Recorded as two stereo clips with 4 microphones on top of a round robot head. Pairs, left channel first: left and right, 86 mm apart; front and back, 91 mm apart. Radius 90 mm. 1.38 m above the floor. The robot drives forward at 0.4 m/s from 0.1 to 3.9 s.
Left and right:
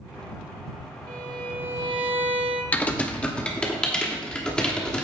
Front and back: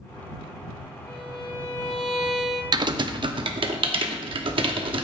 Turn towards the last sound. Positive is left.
turn(degrees=170)